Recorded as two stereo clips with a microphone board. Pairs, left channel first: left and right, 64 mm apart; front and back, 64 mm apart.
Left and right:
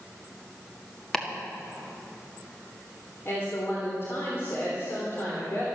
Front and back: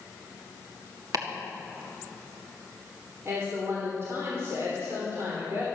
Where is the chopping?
170° left, 1.7 m.